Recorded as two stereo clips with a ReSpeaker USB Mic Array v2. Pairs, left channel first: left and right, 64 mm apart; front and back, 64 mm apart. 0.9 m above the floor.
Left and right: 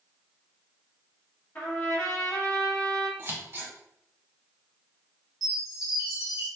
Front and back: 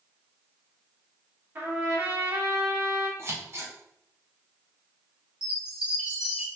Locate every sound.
1.6 s a trumpet: 140° left, 1.4 m
3.2 s scissors: 140° right, 1.0 m
5.4 s a chime: 105° right, 1.2 m